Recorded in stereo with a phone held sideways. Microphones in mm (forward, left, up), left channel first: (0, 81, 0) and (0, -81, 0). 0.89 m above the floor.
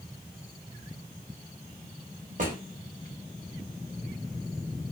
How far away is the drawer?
About 1.0 m.